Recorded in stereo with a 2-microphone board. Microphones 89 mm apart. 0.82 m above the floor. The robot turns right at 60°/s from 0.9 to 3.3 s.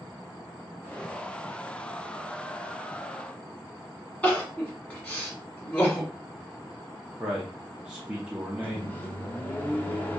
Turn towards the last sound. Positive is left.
turn(degrees=20)  # may be behind; listen again after turning